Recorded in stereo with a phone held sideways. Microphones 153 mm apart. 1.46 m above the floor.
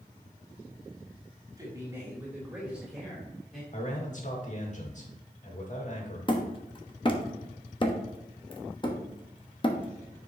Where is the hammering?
30° left (ahead or behind), 1.0 m.